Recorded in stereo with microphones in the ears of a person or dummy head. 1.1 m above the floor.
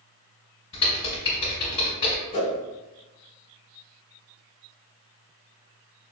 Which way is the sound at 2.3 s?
25° left (ahead or behind).